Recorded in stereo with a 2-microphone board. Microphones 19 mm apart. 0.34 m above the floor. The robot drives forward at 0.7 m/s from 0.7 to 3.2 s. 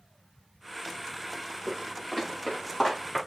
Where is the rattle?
I don't hear a rattle.